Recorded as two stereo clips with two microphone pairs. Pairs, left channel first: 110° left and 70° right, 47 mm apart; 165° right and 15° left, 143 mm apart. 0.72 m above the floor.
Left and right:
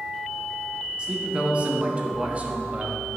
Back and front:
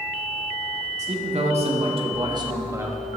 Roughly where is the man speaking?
Ahead.